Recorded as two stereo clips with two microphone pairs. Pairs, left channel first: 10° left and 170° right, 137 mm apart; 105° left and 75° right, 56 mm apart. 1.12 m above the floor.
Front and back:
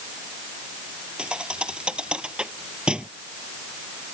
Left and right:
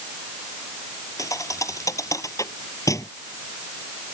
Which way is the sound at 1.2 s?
105° left.